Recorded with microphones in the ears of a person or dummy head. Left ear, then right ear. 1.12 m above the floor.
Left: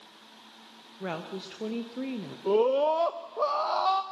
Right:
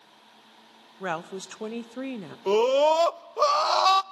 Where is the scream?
75° right (ahead or behind), 0.5 m.